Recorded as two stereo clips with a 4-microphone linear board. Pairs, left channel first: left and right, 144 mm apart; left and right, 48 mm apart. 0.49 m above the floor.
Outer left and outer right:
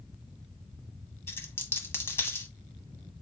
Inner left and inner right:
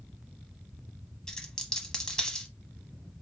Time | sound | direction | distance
1.3 | a dropped coin | 15° left (ahead or behind) | 0.8 m